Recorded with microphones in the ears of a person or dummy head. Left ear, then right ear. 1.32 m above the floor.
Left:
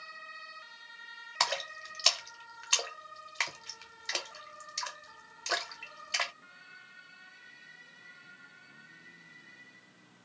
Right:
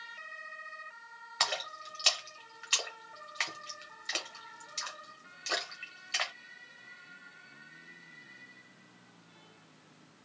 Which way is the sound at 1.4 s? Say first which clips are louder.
Left 1 dB; 15° left (ahead or behind).